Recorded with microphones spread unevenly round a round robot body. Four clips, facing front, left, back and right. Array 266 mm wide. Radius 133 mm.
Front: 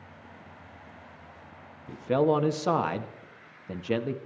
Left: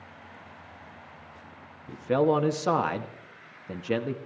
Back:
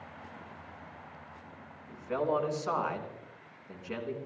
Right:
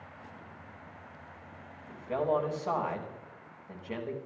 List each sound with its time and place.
1.9 s a man speaking: 55° left, 1.3 m